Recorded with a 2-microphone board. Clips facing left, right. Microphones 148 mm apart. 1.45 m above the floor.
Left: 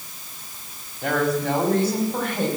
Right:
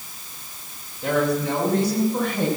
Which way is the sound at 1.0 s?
85° left.